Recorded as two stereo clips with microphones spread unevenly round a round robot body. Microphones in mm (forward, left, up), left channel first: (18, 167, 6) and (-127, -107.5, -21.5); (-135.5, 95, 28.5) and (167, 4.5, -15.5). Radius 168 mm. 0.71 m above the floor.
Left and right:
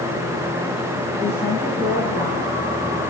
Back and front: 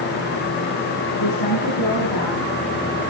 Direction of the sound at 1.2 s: 145° left.